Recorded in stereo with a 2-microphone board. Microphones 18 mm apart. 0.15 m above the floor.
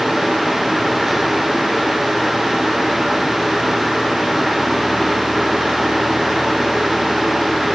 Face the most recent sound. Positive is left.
No sound to turn to.